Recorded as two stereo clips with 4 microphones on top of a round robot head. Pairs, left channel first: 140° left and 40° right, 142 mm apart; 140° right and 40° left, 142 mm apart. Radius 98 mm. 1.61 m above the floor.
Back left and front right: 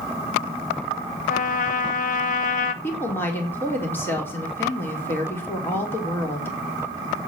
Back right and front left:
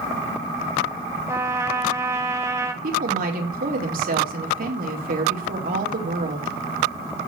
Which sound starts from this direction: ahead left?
A woman speaking, at 2.8 s.